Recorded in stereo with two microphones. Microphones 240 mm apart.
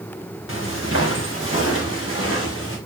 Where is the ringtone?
I don't hear a ringtone.